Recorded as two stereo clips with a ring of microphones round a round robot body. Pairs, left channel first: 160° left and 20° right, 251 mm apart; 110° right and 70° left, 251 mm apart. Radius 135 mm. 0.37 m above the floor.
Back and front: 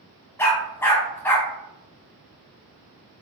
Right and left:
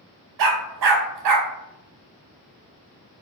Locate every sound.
0.4 s a dog barking: 75° left, 0.6 m